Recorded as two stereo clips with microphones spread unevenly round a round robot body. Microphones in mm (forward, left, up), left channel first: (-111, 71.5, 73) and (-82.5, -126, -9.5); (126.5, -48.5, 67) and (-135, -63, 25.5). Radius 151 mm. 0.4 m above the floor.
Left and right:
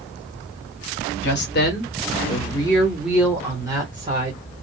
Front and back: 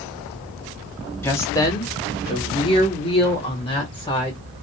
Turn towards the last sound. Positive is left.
turn(degrees=-70)